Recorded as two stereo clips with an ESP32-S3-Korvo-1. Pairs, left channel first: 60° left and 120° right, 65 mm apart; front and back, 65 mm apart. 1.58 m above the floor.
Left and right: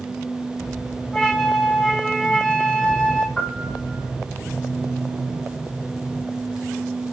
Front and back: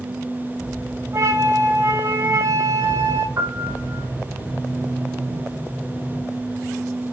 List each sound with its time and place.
1.1 s a flute: 135° left, 4 m
3.4 s a piano: 140° left, 3.5 m